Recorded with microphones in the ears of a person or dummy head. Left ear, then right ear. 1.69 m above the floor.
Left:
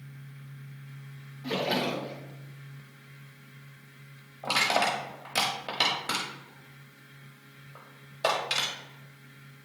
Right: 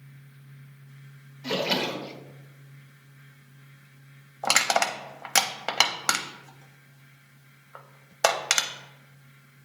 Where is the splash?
30° right (ahead or behind), 1.2 m.